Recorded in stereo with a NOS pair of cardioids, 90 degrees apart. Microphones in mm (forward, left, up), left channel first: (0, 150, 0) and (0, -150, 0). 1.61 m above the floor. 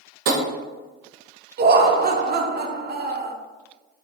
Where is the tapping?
55° right, 1.0 m.